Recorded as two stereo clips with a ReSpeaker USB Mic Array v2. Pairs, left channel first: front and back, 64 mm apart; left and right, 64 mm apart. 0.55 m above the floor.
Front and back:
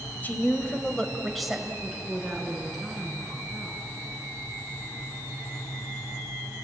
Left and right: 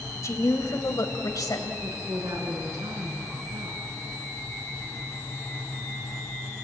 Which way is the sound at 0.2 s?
60° left.